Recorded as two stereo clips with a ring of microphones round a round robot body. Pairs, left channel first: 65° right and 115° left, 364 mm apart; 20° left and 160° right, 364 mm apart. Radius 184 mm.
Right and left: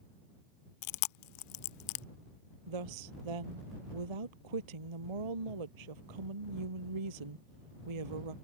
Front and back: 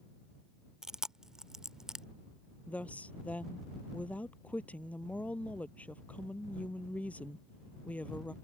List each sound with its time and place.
0.8 s chewing: 70° right
2.7 s a woman speaking: 110° left